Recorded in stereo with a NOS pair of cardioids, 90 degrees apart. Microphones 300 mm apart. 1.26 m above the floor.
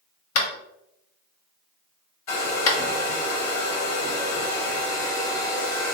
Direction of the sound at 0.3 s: 60° left.